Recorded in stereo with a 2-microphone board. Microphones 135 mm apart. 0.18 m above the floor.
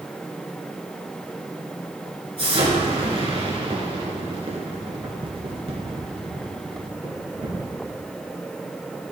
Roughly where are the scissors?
No scissors in this recording.